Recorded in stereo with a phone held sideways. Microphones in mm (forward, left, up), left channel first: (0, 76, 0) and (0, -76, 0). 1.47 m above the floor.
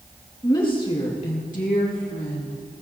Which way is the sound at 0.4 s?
25° left (ahead or behind).